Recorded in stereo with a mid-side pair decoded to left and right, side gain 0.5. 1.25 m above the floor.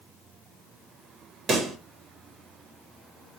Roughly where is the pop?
Ahead right.